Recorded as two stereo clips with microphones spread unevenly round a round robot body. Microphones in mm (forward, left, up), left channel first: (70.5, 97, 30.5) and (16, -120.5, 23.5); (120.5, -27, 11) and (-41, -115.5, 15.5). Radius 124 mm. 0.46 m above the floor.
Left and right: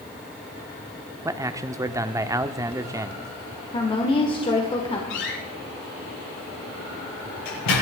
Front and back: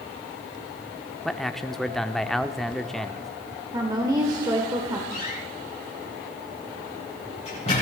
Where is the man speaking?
55° right, 0.8 m.